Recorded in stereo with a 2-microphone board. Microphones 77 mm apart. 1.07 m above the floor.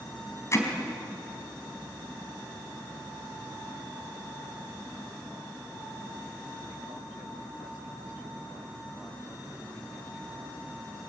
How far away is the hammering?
About 4 m.